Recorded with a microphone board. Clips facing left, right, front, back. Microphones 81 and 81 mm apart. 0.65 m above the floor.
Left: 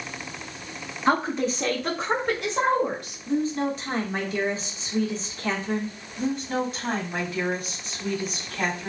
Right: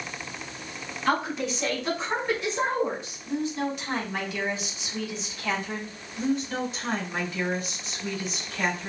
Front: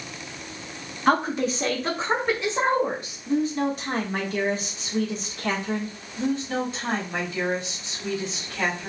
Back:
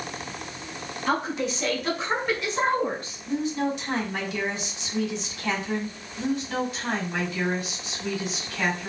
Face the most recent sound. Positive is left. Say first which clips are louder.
# left 1 dB, front 1 dB
turn(degrees=60)